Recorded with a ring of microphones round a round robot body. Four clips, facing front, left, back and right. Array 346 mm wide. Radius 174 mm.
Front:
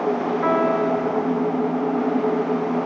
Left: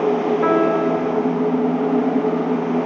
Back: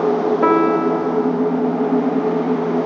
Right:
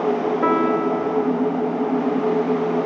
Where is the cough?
I don't hear a cough.